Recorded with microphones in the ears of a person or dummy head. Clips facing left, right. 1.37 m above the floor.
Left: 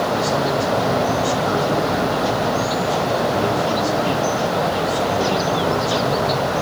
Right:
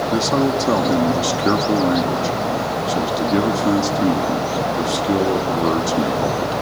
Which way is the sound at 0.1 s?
85° right.